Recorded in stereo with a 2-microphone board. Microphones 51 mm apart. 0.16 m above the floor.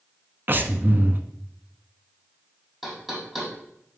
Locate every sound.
0.5 s breathing: 40° right (ahead or behind), 0.6 m
2.8 s knocking: 5° right (ahead or behind), 3 m